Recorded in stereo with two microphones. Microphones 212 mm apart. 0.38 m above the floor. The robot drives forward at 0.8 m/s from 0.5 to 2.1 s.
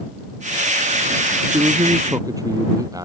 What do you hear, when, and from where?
1.4 s a man speaking: 15° right (ahead or behind)